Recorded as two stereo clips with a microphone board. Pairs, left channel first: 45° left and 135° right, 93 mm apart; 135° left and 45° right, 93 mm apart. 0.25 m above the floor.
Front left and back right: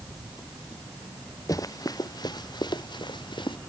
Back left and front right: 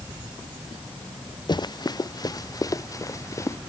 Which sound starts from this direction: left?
Running footsteps, at 1.5 s.